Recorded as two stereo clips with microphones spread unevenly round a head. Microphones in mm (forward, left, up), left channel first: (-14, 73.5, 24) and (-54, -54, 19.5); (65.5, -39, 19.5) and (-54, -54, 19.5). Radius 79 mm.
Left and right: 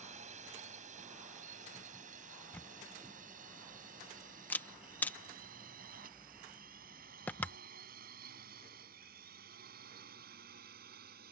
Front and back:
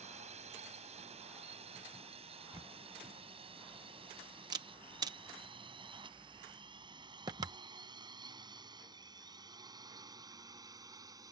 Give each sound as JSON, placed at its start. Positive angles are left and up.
{"t": 0.0, "sound": "a drone", "azimuth_deg": -145}
{"t": 2.5, "sound": "a camera shutter", "azimuth_deg": 140}